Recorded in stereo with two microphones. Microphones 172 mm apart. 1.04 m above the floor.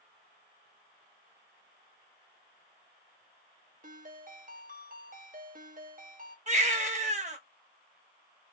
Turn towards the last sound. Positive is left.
turn(degrees=-40)  # may be behind; listen again after turning